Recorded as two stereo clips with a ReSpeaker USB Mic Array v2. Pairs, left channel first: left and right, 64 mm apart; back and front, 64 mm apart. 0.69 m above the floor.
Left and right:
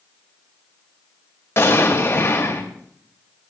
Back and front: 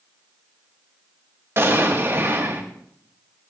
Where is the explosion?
45° left, 2.5 m.